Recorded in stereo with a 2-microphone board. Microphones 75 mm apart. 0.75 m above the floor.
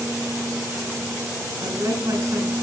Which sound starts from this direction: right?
A woman speaking, at 1.6 s.